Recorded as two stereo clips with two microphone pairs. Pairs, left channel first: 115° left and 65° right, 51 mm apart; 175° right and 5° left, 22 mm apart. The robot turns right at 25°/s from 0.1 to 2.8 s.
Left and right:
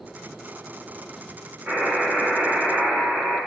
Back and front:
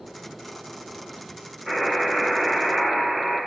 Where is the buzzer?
85° right, 1.4 m; by 3.4 s 55° right, 1.4 m.